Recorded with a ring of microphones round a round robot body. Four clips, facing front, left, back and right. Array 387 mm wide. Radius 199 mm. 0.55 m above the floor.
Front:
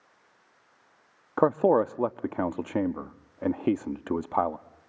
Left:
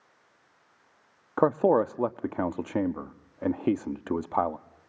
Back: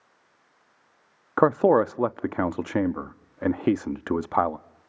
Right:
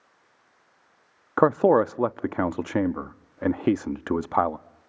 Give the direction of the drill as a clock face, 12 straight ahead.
No drill in this recording.